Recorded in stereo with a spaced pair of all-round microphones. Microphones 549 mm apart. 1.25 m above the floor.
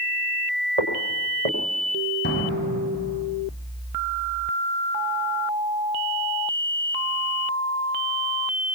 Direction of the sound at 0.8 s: 75° right (ahead or behind).